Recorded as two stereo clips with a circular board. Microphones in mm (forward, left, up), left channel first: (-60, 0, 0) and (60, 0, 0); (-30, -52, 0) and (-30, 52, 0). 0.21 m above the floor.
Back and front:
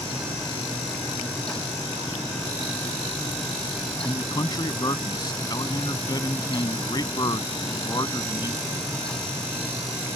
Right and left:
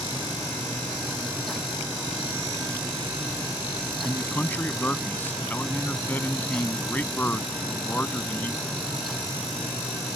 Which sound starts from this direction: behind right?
A man speaking, at 4.0 s.